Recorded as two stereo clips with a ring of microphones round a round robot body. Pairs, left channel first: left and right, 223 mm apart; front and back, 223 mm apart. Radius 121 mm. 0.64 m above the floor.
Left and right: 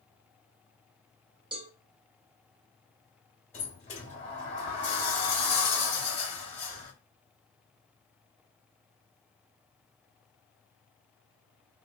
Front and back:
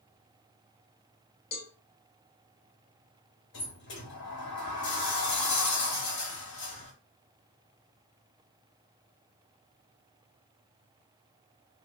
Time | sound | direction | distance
1.5 | a cowbell | 30° right | 0.8 m
3.5 | a sliding door | 30° left | 1.6 m